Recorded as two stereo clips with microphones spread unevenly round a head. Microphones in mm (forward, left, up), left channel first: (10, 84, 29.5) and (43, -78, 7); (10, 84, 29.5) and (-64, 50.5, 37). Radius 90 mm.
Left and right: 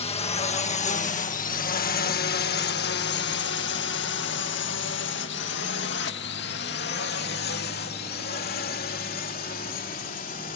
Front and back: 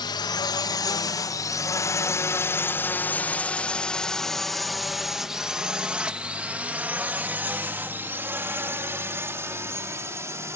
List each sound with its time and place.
0.0 s a drone: 45° left; by 10.6 s 150° left